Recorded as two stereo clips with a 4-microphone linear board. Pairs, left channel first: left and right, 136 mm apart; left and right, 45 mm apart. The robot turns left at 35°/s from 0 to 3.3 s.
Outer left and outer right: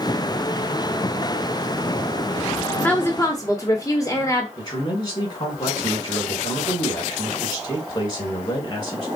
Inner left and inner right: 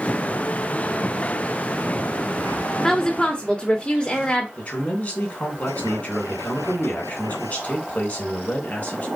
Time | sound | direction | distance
2.8 | a woman speaking | 10° left (ahead or behind) | 0.9 m
4.6 | a man speaking | 35° left (ahead or behind) | 2.5 m